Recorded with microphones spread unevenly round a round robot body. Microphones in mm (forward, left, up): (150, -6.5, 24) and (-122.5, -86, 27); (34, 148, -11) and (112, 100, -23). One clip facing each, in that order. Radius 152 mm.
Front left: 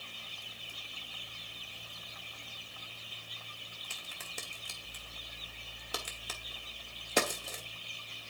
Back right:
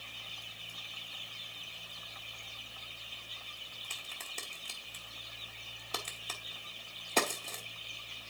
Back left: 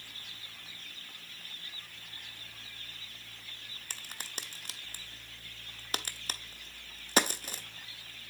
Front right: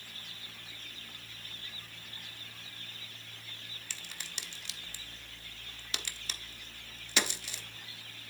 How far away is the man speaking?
No man speaking in this recording.